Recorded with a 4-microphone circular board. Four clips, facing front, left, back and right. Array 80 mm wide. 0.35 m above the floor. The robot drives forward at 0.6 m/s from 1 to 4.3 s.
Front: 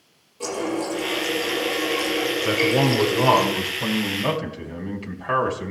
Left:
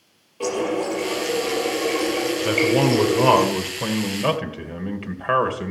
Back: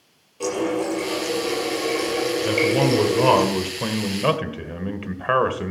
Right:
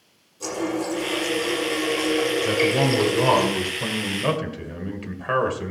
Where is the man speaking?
60° left, 1.4 m; by 5.7 s 150° left, 1.6 m.